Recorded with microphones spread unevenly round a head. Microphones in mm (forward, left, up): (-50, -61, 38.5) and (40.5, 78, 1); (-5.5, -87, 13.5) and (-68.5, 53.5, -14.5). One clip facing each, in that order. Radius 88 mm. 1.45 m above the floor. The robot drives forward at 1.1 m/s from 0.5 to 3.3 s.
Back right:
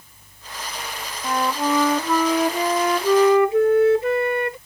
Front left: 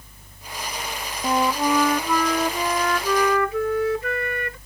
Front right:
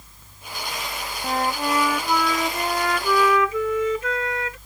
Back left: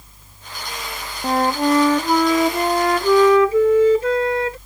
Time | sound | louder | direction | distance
1.2 | a flute | front left 1 dB, back left 7 dB | 130° left | ?